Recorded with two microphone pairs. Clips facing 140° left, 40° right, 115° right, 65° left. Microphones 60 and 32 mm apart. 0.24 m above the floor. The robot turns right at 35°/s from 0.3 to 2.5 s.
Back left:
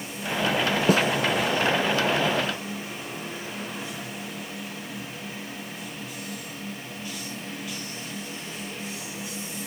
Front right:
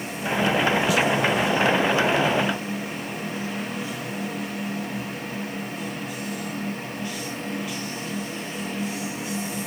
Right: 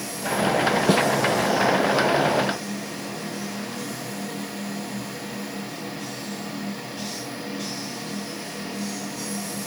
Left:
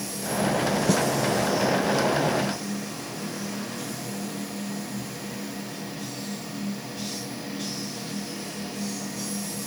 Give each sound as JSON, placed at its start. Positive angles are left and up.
{"t": 0.9, "sound": "a snare drum", "azimuth_deg": -175}